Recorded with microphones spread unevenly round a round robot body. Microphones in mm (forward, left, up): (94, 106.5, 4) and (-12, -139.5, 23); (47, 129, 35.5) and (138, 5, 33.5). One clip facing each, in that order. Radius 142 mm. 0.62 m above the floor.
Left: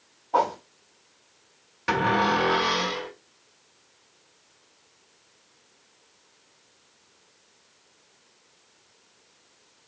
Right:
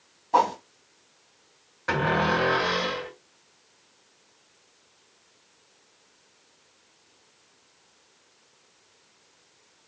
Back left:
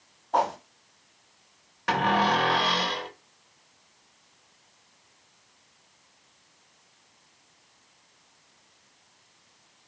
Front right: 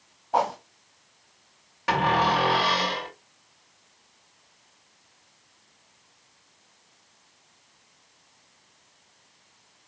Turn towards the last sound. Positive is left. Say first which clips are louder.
# left 1 dB, front right 1 dB
turn(degrees=25)